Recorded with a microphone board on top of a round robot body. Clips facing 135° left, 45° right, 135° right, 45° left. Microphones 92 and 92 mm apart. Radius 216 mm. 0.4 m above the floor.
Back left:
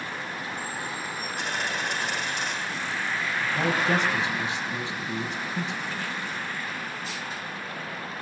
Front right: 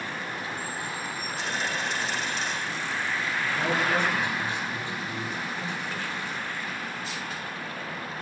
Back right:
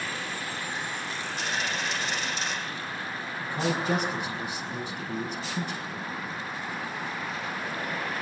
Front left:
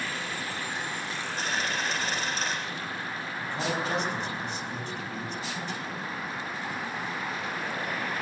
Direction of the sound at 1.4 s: 100° left.